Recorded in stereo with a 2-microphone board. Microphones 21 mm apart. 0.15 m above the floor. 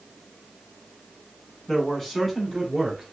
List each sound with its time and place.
1.7 s a man speaking: 15° left (ahead or behind), 1.0 m; by 3.0 s 25° right (ahead or behind), 1.3 m